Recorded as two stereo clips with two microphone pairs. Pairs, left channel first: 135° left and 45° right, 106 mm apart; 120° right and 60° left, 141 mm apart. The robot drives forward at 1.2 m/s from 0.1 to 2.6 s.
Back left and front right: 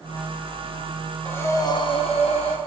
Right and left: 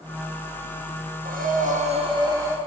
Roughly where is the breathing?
Ahead left.